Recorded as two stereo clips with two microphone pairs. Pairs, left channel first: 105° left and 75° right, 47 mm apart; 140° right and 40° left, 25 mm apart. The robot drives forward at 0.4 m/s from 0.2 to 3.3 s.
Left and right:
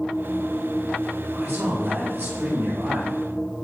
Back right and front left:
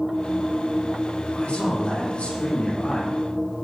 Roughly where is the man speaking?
Behind right.